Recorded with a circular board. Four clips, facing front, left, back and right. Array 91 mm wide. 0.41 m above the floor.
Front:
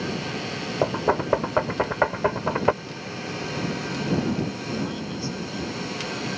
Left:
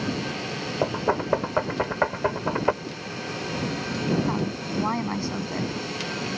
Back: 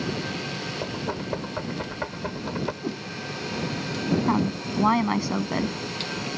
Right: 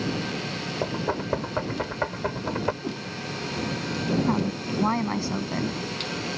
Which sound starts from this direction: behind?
A woman speaking, at 4.3 s.